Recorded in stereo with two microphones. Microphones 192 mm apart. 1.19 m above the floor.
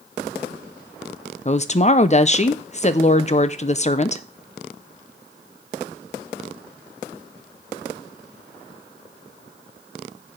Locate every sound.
1.4 s a woman speaking: 35° left (ahead or behind), 0.7 m